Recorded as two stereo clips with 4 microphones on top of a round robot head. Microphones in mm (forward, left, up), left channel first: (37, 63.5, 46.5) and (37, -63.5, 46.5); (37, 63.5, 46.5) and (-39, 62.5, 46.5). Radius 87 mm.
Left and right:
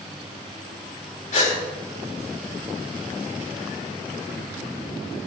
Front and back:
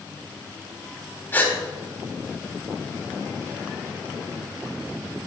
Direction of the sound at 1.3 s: 65° left.